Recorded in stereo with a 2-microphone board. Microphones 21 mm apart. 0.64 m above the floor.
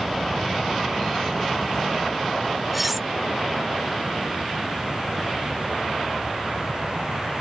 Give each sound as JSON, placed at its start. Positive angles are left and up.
{"t": 2.7, "sound": "cutlery clinking", "side_deg": -10}